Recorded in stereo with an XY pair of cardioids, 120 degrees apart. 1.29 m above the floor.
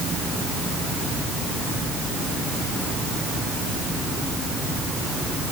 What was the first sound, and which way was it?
Only background noise.